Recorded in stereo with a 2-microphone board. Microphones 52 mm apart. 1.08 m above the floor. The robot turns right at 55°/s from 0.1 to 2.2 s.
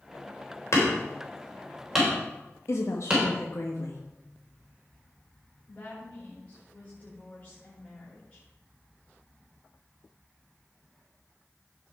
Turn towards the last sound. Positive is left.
turn(degrees=25)  # may be behind; listen again after turning